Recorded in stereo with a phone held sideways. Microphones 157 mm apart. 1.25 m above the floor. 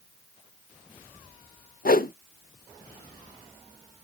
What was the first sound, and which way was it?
A whoosh, 70° left (ahead or behind).